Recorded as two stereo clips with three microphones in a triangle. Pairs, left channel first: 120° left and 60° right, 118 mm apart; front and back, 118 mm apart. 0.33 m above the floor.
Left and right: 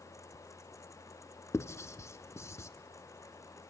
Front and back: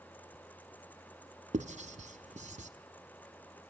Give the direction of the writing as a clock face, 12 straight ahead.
6 o'clock.